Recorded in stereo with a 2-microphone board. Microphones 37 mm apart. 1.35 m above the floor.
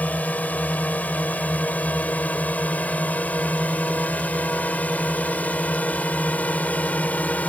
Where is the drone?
45° left (ahead or behind).